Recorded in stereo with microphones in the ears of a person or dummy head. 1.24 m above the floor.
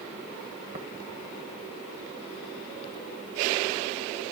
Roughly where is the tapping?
Right.